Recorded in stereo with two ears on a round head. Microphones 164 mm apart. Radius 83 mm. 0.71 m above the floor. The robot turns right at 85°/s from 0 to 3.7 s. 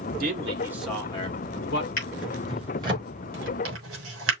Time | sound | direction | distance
0.2 | a man speaking | 55° right | 1.4 m
2.0 | a drawer | 50° left (ahead or behind) | 5 m